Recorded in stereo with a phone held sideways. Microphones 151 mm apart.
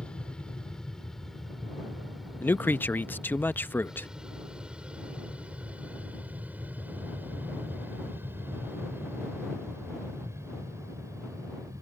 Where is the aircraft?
5° left (ahead or behind); by 11.8 s 20° right (ahead or behind).